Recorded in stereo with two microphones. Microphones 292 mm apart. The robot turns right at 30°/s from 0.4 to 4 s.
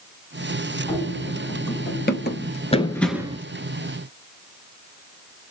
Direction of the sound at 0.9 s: 10° left (ahead or behind).